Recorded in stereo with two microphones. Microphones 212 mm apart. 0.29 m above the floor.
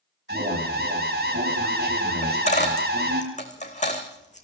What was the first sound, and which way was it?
An alarm, 55° right (ahead or behind).